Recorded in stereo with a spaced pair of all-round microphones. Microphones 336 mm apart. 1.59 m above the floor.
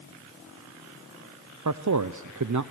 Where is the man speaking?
60° right (ahead or behind), 0.5 m.